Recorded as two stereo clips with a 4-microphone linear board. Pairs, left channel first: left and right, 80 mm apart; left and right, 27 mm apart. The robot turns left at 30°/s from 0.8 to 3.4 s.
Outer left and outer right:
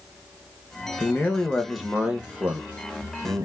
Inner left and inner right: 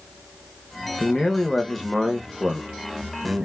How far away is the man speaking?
About 1.1 m.